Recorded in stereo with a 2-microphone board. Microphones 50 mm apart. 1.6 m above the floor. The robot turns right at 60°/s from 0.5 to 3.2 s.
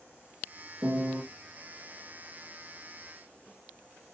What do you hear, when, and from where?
0.8 s a piano: 40° right (ahead or behind), 1.0 m; by 1.2 s 15° right (ahead or behind), 1.0 m